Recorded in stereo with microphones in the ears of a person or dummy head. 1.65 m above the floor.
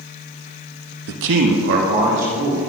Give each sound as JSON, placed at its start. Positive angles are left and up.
{"t": 1.1, "sound": "a man speaking", "side_deg": -65, "distance_m": 0.8}